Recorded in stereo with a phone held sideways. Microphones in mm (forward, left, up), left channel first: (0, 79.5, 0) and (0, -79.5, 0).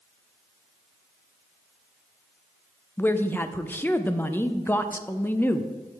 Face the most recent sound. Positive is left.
turn(degrees=15)  # may be behind; listen again after turning